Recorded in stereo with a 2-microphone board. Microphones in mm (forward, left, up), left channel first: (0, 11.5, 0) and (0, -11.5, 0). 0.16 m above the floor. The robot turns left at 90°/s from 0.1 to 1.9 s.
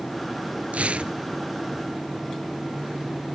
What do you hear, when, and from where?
0.7 s tearing paper: 95° right, 0.7 m; by 1.1 s 130° right, 0.7 m